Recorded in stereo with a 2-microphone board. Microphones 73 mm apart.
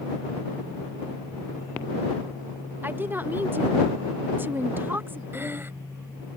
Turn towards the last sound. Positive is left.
turn(degrees=-30)  # may be behind; listen again after turning